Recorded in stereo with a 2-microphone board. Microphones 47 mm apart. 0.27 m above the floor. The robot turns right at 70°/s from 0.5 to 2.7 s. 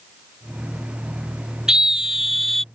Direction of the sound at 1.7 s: 15° right (ahead or behind).